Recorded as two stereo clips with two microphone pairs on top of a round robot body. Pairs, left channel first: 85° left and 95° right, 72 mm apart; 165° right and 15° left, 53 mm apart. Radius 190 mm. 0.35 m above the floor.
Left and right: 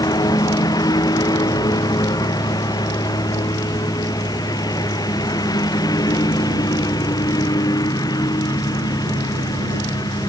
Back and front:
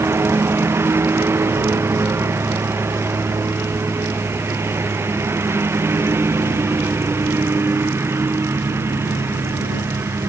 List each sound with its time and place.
0.0 s a lawn mower: 55° left